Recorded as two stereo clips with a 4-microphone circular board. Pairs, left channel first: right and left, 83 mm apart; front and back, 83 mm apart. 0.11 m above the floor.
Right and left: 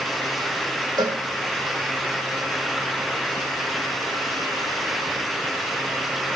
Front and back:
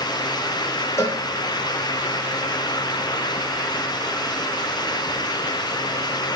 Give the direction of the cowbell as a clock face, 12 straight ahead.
10 o'clock.